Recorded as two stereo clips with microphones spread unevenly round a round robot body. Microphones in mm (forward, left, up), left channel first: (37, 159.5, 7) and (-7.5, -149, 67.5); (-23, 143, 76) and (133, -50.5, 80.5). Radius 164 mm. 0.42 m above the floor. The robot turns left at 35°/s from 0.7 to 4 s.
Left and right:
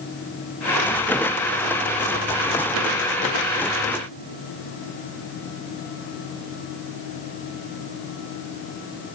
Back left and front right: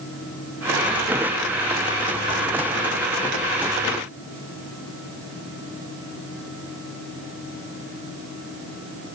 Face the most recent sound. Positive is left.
No sound to turn to.